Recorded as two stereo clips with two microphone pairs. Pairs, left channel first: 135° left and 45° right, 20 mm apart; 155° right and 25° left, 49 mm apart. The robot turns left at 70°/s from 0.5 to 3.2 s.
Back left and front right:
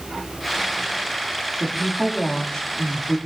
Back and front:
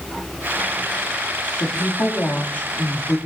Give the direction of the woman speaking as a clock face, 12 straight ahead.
5 o'clock.